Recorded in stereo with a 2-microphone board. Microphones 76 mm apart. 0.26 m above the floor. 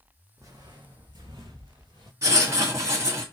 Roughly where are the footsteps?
Right.